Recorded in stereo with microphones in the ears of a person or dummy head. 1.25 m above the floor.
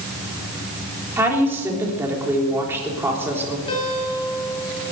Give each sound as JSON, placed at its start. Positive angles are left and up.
{"t": 1.2, "sound": "a woman speaking", "side_deg": -15, "distance_m": 3.5}
{"t": 3.7, "sound": "a guitar", "side_deg": 30, "distance_m": 5.0}